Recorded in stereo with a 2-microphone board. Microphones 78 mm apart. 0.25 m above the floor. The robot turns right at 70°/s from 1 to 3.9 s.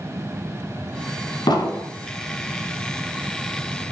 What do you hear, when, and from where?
1.5 s an explosion: 75° left (ahead or behind), 0.6 m; by 1.9 s 80° left, 0.6 m